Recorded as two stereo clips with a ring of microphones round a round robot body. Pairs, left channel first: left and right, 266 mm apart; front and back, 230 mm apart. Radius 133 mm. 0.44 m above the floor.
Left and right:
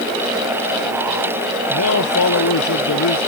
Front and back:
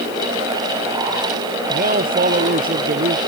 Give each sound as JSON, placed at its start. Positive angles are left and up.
{"t": 1.7, "sound": "a man speaking", "azimuth_deg": 130}